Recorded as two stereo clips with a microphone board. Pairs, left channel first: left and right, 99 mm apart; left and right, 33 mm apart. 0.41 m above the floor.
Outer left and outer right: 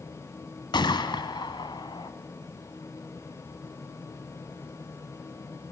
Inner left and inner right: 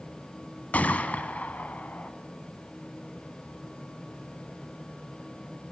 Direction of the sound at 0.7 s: 50° left (ahead or behind).